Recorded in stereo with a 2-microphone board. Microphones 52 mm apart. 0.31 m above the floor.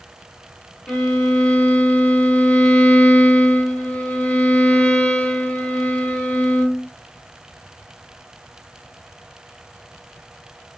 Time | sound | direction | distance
0.9 | a violin | 20° left (ahead or behind) | 0.7 m